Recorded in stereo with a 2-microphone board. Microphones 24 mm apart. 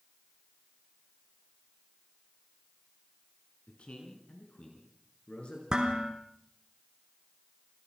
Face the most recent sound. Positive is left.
turn(degrees=-35)  # may be behind; listen again after turning